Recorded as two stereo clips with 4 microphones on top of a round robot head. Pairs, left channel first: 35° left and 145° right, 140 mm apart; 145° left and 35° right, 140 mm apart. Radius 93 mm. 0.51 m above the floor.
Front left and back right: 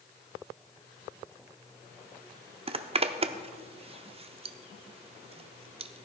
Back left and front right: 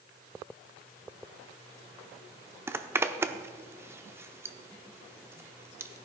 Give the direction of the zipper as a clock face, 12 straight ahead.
4 o'clock.